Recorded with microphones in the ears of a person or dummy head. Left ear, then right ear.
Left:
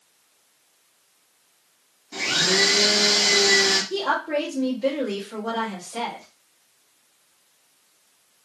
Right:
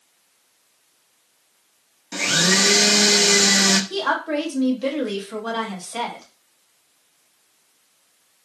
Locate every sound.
2.1 s a blender: 60° right (ahead or behind), 0.6 m
3.9 s a woman speaking: 55° right (ahead or behind), 1.2 m